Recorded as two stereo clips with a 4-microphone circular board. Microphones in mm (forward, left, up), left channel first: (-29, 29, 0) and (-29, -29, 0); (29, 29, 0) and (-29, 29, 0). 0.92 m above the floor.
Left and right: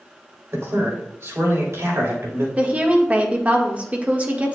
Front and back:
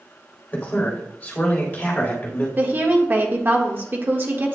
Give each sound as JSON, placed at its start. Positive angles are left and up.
{"t": 0.5, "sound": "a man speaking", "azimuth_deg": -60, "distance_m": 4.0}
{"t": 2.6, "sound": "a woman speaking", "azimuth_deg": -145, "distance_m": 1.3}